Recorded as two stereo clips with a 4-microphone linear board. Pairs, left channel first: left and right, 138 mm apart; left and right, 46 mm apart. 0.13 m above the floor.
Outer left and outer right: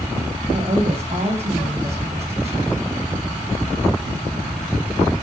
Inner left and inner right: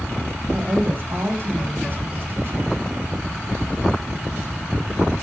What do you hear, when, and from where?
0.5 s a woman speaking: 45° right (ahead or behind), 5.5 m